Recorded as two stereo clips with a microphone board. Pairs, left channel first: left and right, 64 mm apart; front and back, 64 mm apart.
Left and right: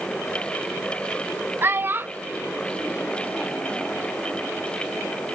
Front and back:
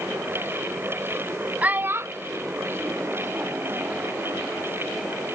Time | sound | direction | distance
1.6 | a child speaking | 120° right | ?